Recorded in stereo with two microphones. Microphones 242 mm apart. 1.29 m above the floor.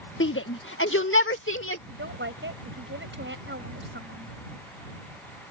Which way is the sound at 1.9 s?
60° right (ahead or behind).